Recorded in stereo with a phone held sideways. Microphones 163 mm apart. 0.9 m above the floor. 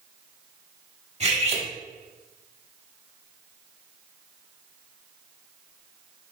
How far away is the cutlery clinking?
About 1.3 m.